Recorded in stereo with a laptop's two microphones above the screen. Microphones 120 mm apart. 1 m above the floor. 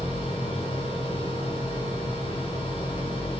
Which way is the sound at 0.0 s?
50° left (ahead or behind).